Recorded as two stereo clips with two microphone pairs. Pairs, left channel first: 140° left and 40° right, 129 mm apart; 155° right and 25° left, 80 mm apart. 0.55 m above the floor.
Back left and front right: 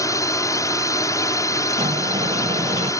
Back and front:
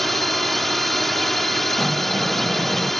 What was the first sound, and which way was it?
A drone, 120° left.